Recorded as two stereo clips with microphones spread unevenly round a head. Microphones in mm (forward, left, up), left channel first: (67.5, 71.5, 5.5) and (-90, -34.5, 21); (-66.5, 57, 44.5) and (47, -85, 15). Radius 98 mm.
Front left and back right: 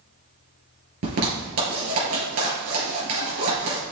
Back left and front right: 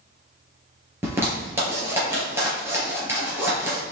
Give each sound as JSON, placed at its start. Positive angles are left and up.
{"t": 1.0, "sound": "a zipper", "azimuth_deg": -130, "distance_m": 3.5}